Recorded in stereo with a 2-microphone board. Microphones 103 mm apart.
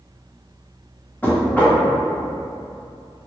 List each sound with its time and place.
1.2 s knocking: 15° left (ahead or behind), 0.7 m